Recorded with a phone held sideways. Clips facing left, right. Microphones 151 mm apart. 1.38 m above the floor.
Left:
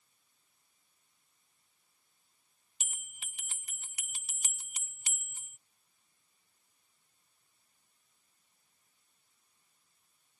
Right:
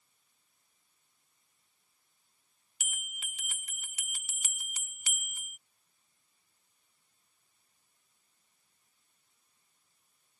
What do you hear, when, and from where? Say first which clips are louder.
2.8 s a bell: right 6 dB; 30° left (ahead or behind)